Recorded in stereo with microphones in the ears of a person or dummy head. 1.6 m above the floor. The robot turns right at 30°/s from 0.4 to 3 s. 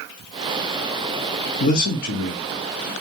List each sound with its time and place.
1.6 s a man speaking: 40° left (ahead or behind), 0.7 m; by 2.9 s 80° left, 0.7 m